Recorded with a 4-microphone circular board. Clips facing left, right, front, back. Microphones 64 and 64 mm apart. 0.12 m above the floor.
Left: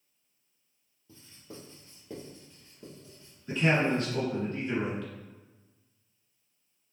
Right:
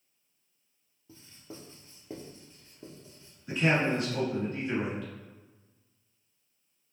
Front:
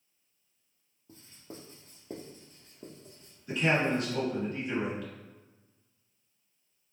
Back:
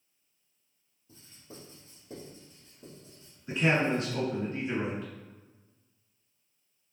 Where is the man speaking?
150° right, 1.9 m.